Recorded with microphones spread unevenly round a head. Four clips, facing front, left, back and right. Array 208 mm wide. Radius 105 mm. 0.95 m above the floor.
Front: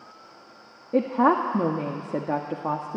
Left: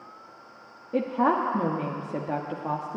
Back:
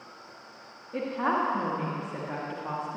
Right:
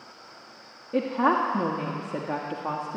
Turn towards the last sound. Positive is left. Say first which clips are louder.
# even, front 7 dB
turn(degrees=-5)